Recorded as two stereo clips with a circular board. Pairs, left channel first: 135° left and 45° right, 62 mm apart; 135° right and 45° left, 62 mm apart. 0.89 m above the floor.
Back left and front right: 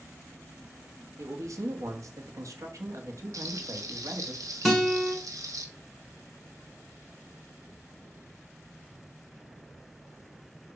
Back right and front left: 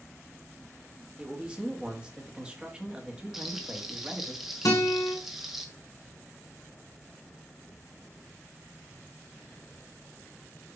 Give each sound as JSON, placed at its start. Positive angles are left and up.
{"t": 1.2, "sound": "a man speaking", "azimuth_deg": -25, "distance_m": 1.5}
{"t": 3.3, "sound": "frying", "azimuth_deg": -40, "distance_m": 1.3}
{"t": 4.7, "sound": "a guitar", "azimuth_deg": -130, "distance_m": 3.0}